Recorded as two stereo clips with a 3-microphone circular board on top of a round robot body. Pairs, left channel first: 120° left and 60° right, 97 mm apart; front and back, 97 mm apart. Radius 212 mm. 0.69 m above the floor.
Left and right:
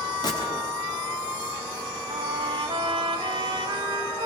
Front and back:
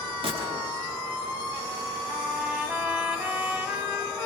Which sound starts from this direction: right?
A trumpet, at 2.1 s.